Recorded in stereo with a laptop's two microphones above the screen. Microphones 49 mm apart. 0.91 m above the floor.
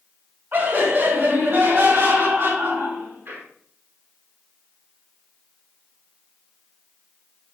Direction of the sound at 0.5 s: 50° right (ahead or behind).